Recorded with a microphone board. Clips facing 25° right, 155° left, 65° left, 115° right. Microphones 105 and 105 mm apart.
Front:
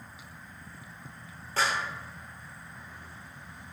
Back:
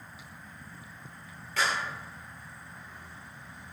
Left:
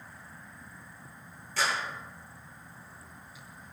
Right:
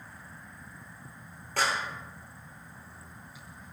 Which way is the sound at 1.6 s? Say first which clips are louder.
Front 1 dB, right 1 dB; 75° right.